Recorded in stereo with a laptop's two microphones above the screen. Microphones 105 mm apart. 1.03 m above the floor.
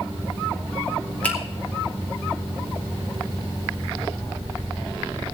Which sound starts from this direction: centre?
A finger snap, at 1.2 s.